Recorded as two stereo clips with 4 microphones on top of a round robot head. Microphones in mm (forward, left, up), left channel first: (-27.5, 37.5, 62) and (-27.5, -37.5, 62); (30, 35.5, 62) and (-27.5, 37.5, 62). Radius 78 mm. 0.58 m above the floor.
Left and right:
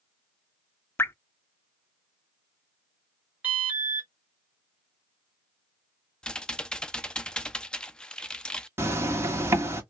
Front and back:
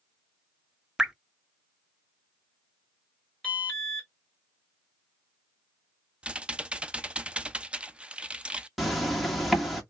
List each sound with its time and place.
1.0 s dripping: 110° left, 0.7 m
3.4 s an alarm: 55° right, 1.9 m
6.2 s typing on a keyboard: 145° left, 0.5 m
8.8 s a zipper: 90° right, 1.4 m